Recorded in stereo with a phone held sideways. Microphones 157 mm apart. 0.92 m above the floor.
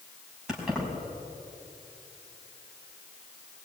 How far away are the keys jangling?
About 5 m.